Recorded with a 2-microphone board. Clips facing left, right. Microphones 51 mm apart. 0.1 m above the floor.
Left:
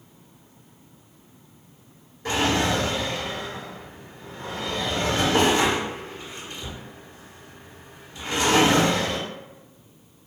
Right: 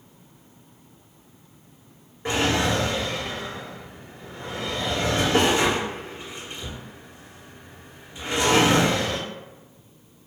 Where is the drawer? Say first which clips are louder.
Even; 10° right (ahead or behind), 1.6 m.